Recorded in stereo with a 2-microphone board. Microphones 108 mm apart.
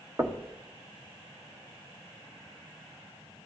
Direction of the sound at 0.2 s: 25° right (ahead or behind).